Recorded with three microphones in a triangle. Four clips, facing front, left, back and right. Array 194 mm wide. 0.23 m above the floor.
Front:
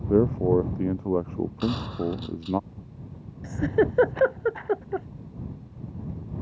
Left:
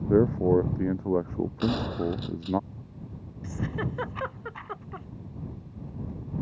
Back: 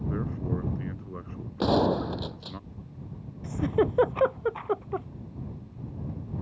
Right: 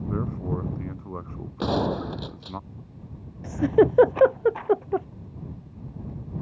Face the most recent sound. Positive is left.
turn(degrees=-80)